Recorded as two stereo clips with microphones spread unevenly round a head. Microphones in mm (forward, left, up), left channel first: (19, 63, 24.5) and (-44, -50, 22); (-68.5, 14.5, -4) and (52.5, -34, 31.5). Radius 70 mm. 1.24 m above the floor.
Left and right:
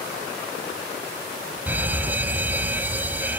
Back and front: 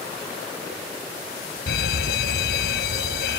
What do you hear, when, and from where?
1.7 s a fire alarm: 165° left